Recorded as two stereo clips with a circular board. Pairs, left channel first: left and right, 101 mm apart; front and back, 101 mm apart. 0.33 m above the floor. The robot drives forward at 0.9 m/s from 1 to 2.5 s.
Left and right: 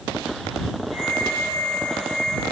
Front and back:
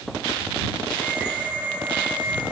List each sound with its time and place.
Only background noise.